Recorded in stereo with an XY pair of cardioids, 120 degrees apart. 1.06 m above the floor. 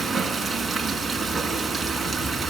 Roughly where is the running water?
Ahead.